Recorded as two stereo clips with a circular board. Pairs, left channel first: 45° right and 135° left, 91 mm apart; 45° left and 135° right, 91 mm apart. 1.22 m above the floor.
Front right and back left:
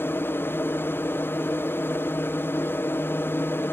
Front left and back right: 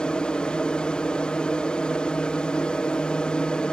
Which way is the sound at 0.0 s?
25° right.